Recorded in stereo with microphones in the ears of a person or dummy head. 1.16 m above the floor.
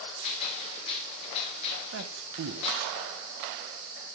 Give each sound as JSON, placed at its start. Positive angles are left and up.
{"t": 0.2, "sound": "a gunshot", "side_deg": 40, "distance_m": 2.5}
{"t": 1.9, "sound": "a man speaking", "side_deg": -65, "distance_m": 0.5}